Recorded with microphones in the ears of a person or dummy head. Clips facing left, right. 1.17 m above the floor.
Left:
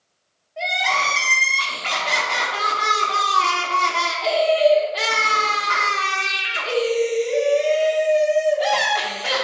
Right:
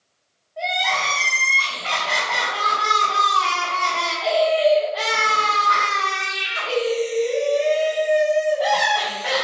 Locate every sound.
0.6 s crying: 30° left (ahead or behind), 1.3 m